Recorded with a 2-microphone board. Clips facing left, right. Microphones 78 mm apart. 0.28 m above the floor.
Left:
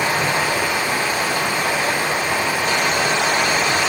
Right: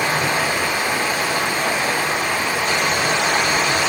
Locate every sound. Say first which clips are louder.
0.0 s running water: even; 45° right (ahead or behind), 1.7 m